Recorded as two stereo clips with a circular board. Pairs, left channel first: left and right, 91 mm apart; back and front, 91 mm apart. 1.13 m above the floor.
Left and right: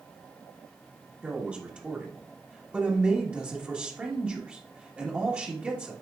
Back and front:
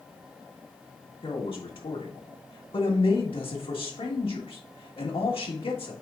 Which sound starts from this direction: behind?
A man speaking, at 1.2 s.